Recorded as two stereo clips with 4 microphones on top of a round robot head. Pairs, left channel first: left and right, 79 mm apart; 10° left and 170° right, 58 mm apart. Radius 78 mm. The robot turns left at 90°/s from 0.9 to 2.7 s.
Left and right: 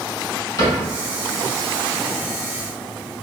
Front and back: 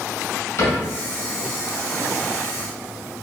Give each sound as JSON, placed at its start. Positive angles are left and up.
{"t": 0.6, "sound": "a cupboard door", "azimuth_deg": 45, "distance_m": 1.3}